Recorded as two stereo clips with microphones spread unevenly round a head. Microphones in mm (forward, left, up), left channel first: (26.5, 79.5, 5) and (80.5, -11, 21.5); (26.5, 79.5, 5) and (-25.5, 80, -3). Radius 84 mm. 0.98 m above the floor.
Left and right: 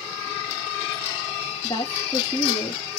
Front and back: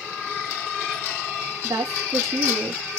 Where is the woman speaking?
175° right, 2 m.